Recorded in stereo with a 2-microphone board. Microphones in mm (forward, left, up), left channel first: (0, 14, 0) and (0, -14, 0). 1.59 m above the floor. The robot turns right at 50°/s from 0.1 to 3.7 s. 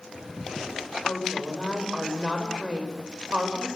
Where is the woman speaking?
130° left, 6.5 m; by 3.7 s 100° right, 6.5 m.